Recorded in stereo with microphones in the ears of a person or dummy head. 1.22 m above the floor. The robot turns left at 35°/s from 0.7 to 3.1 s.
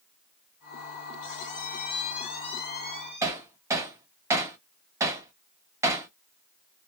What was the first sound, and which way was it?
A squeak, 70° left.